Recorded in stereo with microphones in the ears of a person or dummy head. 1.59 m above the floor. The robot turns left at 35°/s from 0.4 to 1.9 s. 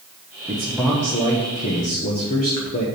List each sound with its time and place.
0.5 s a man speaking: 165° right, 1.3 m; by 2.9 s 145° left, 1.3 m